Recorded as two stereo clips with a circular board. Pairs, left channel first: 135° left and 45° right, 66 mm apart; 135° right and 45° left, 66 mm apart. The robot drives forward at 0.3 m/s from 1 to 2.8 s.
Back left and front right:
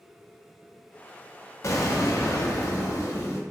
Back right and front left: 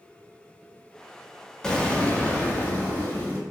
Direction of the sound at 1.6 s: 150° left.